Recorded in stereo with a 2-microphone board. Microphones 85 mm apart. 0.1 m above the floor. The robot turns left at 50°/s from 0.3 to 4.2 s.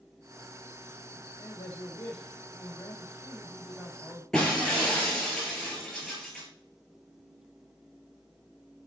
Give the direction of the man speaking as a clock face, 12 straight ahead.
8 o'clock.